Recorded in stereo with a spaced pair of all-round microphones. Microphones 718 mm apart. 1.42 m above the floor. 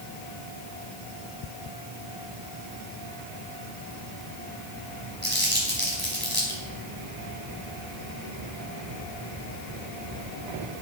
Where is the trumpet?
I don't hear a trumpet.